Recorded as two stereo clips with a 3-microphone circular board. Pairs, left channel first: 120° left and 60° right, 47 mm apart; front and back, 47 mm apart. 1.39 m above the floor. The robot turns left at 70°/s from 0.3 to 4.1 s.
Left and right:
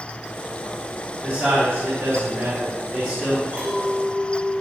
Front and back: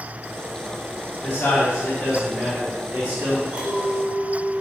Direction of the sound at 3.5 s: 125° right.